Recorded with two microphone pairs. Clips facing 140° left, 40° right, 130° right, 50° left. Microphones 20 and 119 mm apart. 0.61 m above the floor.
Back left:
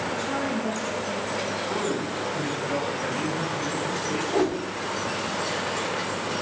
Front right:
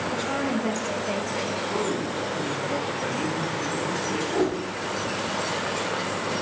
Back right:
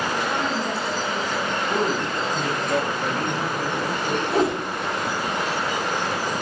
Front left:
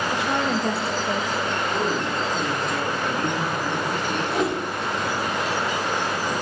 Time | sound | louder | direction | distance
0.1 | a woman speaking | front right 1 dB, front left 1 dB | 40° left | 2.5 m
1.7 | a man speaking | front right 1 dB, back right 1 dB | 150° right | 3.5 m
4.3 | a whoosh | back left 1 dB, back right 3 dB | 175° right | 1.9 m